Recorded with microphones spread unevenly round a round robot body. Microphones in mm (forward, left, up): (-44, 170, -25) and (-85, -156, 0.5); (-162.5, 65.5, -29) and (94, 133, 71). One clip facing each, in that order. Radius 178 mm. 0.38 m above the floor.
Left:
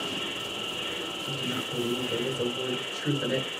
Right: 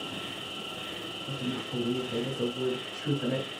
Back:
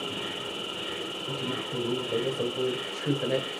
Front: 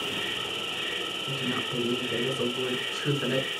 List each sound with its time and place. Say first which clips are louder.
0.0 s an insect: left 4 dB, even; 20° left, 6 m
1.3 s a woman speaking: right 2 dB, front 2 dB; 15° left, 5.5 m